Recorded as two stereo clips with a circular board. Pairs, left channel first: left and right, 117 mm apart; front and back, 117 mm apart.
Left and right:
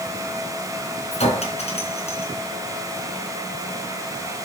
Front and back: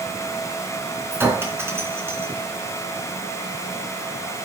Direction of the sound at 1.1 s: 110° left.